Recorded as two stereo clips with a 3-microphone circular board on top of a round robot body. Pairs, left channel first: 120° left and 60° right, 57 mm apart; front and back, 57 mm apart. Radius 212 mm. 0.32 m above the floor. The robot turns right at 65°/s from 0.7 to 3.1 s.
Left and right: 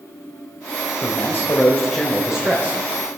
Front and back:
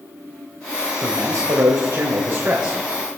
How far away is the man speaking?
About 3 m.